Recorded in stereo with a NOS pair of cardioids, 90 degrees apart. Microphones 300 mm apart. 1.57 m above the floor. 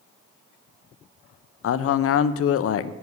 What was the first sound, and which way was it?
A man speaking, 50° left.